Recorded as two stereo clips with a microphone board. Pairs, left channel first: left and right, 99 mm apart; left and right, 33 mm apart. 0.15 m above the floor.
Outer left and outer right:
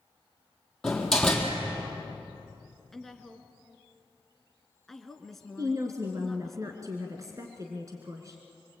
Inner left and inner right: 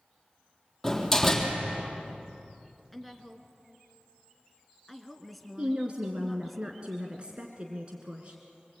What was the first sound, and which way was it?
A door slam, 5° left (ahead or behind).